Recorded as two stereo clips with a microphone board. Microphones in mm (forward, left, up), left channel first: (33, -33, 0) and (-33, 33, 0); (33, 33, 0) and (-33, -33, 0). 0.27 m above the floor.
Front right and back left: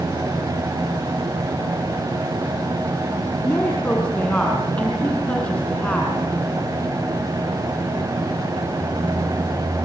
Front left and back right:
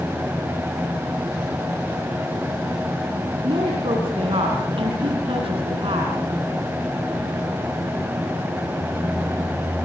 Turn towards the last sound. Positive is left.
turn(degrees=-120)